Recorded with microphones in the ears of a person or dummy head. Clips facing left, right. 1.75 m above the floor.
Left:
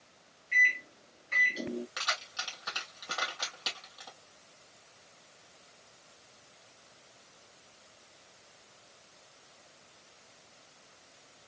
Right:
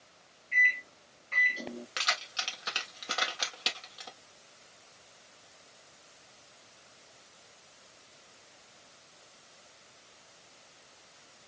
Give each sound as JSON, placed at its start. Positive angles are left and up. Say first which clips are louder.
{"t": 0.5, "sound": "a microwave", "louder": "even", "side_deg": 20, "distance_m": 0.9}
{"t": 2.0, "sound": "keys jangling", "louder": "right 2 dB", "side_deg": -35, "distance_m": 1.8}